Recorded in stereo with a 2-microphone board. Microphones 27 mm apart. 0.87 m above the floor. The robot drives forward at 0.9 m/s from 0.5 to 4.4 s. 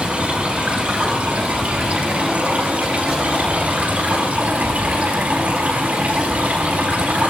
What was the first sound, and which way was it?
Running water, 60° right (ahead or behind).